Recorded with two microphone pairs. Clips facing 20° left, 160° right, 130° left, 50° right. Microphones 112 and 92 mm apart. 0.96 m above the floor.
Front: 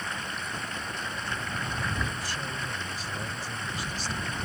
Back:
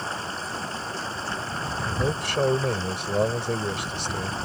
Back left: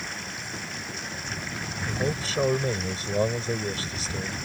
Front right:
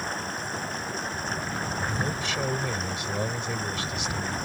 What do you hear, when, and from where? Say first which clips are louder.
0.0 s running water: back 4 dB, front right 5 dB; 100° right
1.9 s a man speaking: back 6 dB, back left 1 dB; 175° right